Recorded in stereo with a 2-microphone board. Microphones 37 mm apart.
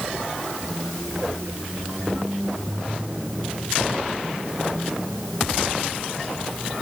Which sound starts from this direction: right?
A squeak, at 0.6 s.